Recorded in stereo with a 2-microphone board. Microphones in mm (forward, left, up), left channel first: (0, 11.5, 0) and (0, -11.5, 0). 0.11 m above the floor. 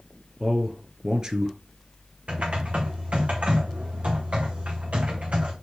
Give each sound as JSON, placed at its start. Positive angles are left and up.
{"t": 0.4, "sound": "a man speaking", "side_deg": -20, "distance_m": 1.5}
{"t": 2.3, "sound": "typing on a keyboard", "side_deg": -75, "distance_m": 3.5}